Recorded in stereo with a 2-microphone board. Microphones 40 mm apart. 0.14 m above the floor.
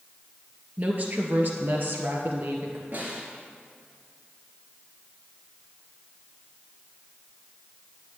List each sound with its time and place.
0.8 s a woman speaking: 45° right (ahead or behind), 2.5 m; by 2.8 s 65° right (ahead or behind), 2.5 m
2.9 s a snare drum: 50° right (ahead or behind), 2.5 m